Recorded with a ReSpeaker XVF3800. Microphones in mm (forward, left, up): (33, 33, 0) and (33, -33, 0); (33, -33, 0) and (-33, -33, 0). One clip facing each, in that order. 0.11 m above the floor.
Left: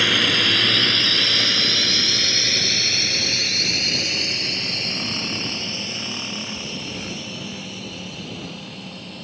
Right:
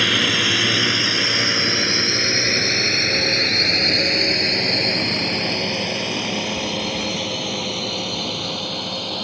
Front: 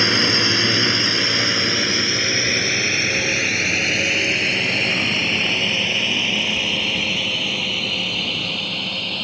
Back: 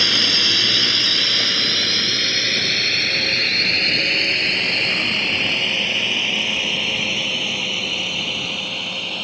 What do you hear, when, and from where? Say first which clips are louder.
0.0 s a drone: right 1 dB, front 3 dB; straight ahead; by 9.2 s 95° right